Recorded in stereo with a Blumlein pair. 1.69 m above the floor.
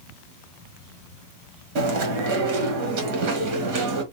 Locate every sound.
1.8 s chewing: 45° right, 1.4 m